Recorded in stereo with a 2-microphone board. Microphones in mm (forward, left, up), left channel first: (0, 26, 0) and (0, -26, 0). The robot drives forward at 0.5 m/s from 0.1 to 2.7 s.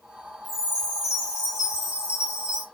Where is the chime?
15° right (ahead or behind), 1.7 m; by 2.6 s 20° right (ahead or behind), 1.0 m.